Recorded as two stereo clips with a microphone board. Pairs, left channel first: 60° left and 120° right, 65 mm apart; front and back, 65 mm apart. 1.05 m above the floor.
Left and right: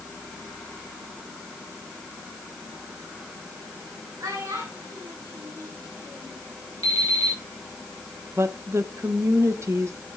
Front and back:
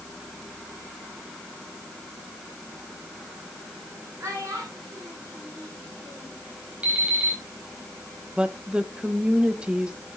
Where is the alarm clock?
110° right, 4.5 m.